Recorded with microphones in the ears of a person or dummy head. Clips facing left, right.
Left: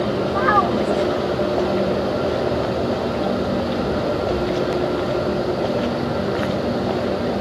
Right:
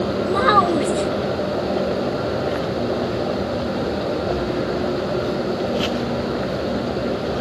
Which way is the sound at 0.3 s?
40° right (ahead or behind).